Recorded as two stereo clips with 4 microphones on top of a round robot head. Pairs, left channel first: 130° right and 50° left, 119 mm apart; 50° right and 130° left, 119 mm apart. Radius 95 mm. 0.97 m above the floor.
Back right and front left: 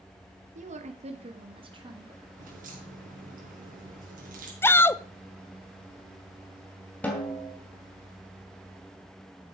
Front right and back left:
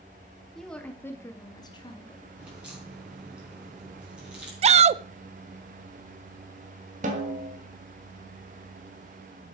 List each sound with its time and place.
0.6 s a woman speaking: 35° left, 1.9 m; by 2.3 s 10° right, 2.5 m
2.4 s a crack: 45° left, 4 m
4.6 s a shout: 160° left, 0.5 m
7.0 s a snare drum: 150° left, 2.5 m